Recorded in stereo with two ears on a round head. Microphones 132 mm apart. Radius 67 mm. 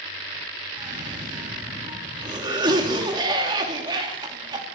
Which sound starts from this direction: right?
A cough, at 0.8 s.